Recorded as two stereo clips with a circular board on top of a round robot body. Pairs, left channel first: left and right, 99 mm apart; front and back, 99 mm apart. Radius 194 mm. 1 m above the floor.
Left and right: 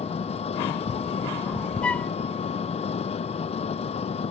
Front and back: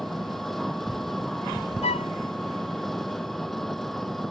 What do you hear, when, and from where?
0.0 s an engine running: 85° left
1.8 s a flute: 10° left